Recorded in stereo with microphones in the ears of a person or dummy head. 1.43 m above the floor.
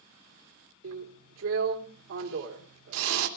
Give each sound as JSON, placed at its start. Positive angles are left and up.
{"t": 0.8, "sound": "a drill", "side_deg": -80, "distance_m": 3.0}